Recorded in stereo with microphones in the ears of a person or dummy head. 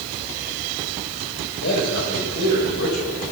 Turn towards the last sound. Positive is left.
turn(degrees=65)  # may be behind; listen again after turning